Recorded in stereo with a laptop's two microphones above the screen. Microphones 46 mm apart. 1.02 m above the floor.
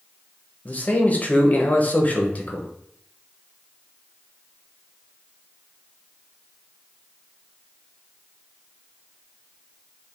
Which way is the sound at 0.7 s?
35° left (ahead or behind).